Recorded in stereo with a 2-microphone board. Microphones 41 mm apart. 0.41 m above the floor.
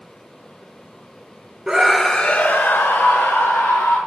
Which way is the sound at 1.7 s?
10° right (ahead or behind).